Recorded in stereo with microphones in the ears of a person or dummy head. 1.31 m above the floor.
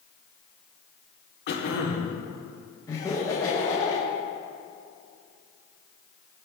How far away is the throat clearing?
About 1.6 m.